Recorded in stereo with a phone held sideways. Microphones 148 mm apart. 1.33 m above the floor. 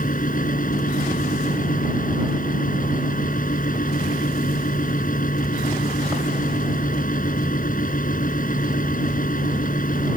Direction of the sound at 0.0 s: 65° left (ahead or behind).